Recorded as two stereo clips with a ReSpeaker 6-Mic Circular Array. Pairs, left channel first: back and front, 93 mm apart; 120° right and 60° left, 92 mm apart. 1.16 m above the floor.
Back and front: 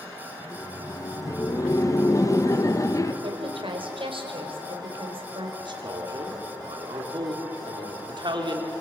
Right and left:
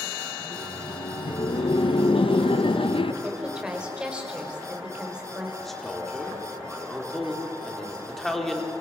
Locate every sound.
0.4 s laughter: 125° right, 1.3 m
3.2 s a woman speaking: 20° right, 4.5 m
5.6 s a man speaking: 30° right, 4 m